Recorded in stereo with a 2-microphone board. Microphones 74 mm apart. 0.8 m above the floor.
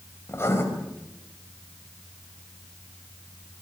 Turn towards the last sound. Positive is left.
turn(degrees=35)  # may be behind; listen again after turning